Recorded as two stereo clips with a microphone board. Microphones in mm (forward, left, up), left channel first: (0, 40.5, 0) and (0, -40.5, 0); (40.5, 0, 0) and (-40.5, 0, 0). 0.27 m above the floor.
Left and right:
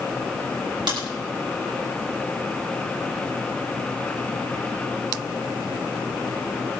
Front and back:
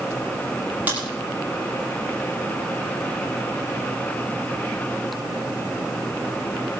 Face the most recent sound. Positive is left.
turn(degrees=-110)